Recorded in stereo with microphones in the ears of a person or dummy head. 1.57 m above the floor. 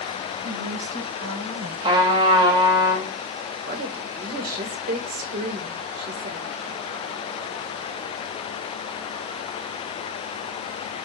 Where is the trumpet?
25° right (ahead or behind), 1.9 m.